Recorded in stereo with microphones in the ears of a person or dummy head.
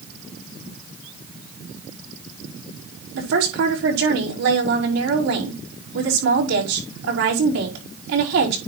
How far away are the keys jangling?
No keys jangling in this recording.